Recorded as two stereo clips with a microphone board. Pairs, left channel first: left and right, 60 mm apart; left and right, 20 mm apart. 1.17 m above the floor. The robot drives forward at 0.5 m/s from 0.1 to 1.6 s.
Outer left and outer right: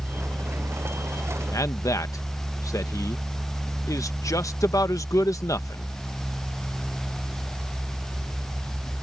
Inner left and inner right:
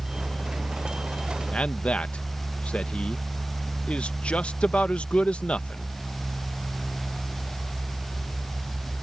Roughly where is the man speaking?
Left.